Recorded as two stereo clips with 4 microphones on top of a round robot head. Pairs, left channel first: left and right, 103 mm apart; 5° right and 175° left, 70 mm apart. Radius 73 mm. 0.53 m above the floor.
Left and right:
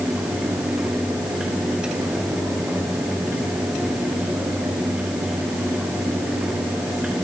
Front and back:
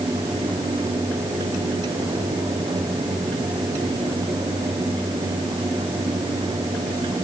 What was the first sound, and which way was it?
Only background noise.